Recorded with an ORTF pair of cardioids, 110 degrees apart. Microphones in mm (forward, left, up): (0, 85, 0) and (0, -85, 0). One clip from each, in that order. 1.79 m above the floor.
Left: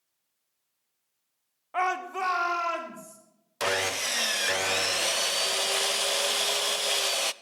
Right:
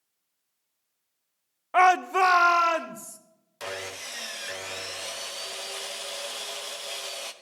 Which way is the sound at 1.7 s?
40° right.